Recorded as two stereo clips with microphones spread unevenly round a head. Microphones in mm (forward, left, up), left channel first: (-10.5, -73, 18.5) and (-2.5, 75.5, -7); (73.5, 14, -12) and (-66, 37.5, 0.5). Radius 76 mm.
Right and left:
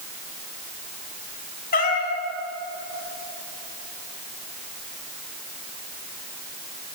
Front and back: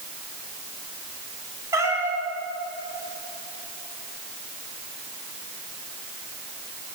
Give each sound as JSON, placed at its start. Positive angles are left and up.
{"t": 1.7, "sound": "a cat meowing", "azimuth_deg": -120, "distance_m": 5.0}